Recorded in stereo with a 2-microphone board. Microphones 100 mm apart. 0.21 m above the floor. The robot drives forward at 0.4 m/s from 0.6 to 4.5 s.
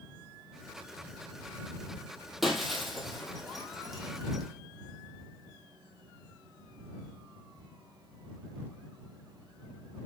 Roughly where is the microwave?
No microwave in this recording.